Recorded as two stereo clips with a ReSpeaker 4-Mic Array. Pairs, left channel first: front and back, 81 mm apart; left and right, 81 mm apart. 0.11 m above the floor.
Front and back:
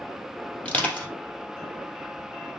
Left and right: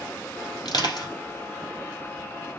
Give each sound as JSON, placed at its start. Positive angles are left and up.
{"t": 0.7, "sound": "crushing", "azimuth_deg": 75, "distance_m": 3.0}